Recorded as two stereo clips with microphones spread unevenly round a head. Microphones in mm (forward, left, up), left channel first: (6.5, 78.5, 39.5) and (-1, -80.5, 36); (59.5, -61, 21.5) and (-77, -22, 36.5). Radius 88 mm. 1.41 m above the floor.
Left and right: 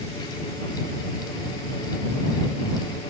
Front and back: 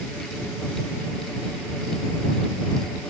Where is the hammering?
No hammering in this recording.